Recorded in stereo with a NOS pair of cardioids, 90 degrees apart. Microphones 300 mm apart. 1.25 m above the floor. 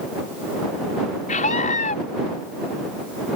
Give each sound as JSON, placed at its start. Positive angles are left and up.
{"t": 1.3, "sound": "a scream", "azimuth_deg": 25}